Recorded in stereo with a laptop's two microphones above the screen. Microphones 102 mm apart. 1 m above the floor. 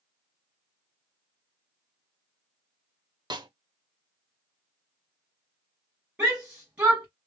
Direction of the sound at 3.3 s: 45° right (ahead or behind).